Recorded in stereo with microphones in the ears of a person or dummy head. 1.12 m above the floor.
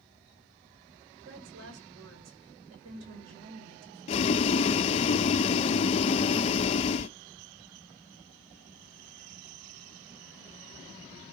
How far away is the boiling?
About 0.5 m.